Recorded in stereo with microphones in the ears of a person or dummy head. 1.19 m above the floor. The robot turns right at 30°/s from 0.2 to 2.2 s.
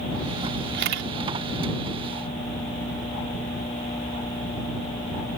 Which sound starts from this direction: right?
A camera shutter, at 0.7 s.